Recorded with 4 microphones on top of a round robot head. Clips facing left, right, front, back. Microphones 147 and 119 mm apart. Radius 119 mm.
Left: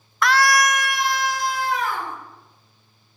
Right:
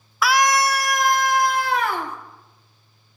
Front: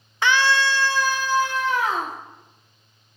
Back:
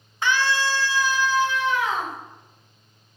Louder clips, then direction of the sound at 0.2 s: Even, front 3 dB; 5° right.